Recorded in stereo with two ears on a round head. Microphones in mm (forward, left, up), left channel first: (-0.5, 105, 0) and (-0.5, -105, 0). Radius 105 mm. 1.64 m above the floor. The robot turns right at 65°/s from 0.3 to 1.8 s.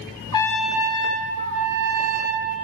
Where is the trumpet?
160° left, 0.5 m; by 2.5 s 105° right, 0.5 m.